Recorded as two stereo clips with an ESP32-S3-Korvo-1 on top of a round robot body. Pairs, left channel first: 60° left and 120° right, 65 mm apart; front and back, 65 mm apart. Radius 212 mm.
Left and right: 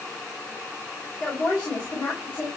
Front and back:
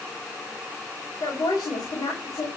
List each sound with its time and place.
1.2 s a woman speaking: 5° right, 5 m